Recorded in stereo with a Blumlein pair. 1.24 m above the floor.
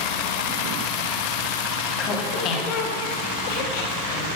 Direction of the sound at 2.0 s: 30° left.